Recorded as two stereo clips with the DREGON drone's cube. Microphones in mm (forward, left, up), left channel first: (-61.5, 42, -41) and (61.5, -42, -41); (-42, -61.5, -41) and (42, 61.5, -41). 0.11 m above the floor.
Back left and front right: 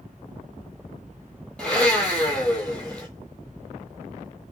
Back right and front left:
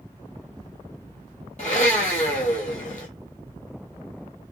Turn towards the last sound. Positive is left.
turn(degrees=-135)